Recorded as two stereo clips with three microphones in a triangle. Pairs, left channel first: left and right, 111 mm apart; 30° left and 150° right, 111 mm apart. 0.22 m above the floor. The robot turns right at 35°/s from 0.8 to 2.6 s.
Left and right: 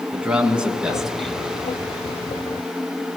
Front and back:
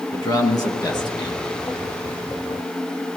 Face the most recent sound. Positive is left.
turn(degrees=50)